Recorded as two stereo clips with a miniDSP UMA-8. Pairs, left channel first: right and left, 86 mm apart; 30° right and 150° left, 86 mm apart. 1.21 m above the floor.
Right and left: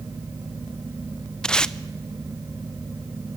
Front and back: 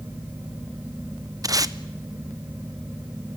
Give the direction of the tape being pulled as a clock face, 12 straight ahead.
6 o'clock.